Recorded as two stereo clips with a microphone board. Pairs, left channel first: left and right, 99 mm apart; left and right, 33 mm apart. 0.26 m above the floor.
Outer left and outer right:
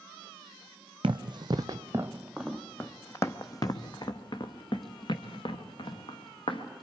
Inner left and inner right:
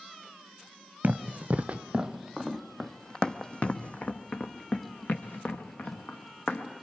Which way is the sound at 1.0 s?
60° right (ahead or behind).